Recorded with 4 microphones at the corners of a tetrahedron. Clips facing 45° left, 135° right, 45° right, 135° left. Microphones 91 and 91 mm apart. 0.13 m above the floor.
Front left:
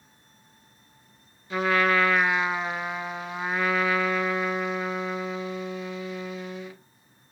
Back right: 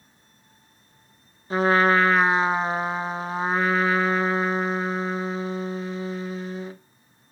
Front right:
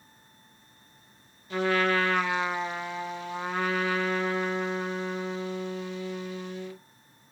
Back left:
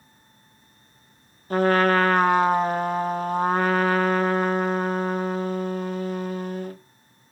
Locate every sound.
1.5 s a trumpet: 170° left, 1.0 m